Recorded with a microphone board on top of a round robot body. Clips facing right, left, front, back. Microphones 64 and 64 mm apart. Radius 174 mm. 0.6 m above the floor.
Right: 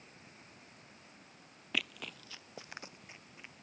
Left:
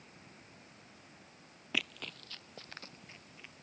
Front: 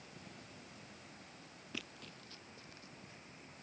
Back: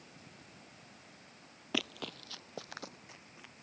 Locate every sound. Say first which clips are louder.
1.7 s running footsteps: even, back 11 dB; straight behind; by 3.5 s 165° right